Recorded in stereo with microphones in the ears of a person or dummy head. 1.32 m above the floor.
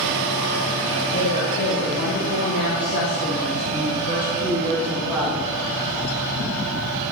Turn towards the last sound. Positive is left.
turn(degrees=0)  # may be behind; listen again after turning